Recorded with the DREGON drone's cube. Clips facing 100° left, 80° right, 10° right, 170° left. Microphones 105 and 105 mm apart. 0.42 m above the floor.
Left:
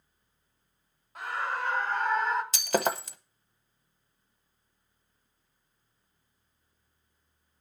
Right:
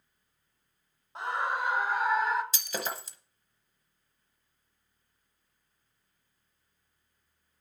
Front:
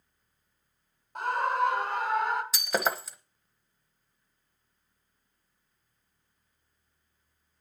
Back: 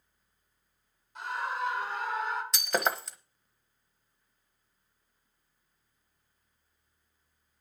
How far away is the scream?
About 1.5 m.